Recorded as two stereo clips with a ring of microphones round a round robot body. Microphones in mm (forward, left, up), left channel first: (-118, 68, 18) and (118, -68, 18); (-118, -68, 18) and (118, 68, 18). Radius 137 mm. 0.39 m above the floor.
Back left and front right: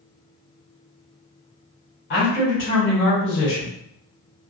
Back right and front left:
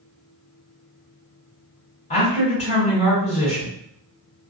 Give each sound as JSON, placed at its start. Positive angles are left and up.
{"t": 2.1, "sound": "a man speaking", "azimuth_deg": 155, "distance_m": 1.7}